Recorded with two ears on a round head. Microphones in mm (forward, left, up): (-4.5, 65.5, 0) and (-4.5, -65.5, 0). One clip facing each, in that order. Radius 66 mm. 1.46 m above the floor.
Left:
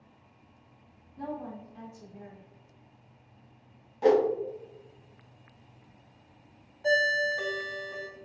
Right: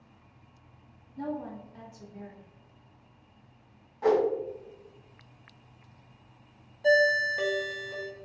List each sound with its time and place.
1.2 s a woman speaking: 55° right (ahead or behind), 1.9 m
4.0 s a whoosh: 30° left (ahead or behind), 0.6 m
6.8 s a ringtone: 20° right (ahead or behind), 0.9 m